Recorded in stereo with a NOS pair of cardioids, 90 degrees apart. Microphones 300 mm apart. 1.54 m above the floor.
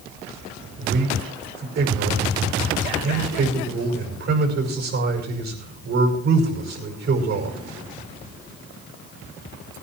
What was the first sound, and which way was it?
A man speaking, 60° right.